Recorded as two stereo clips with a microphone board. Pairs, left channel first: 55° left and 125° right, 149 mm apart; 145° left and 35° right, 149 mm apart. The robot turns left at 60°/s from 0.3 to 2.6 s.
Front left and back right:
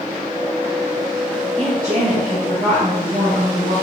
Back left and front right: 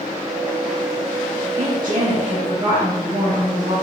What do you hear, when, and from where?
1.6 s a woman speaking: 35° right, 1.6 m; by 3.7 s 95° right, 1.6 m